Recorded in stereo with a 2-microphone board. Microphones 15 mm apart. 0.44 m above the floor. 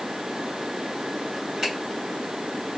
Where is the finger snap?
25° right (ahead or behind), 1.7 m.